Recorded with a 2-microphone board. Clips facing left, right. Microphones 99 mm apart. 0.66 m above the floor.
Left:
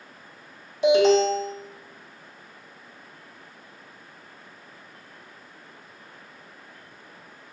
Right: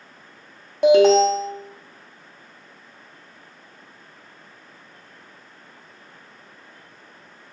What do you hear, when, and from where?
0.8 s an alarm: 50° right (ahead or behind), 0.9 m